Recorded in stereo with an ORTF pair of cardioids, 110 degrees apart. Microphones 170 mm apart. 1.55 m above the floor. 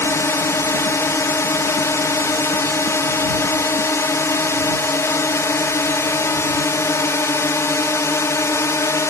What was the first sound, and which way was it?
A drone, 15° left.